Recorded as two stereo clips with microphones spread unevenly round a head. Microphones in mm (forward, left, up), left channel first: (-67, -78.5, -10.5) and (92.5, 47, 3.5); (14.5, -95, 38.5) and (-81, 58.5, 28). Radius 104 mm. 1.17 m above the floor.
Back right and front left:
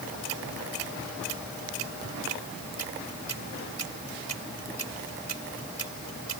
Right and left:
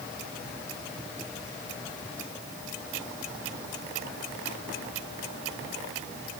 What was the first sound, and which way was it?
Only background noise.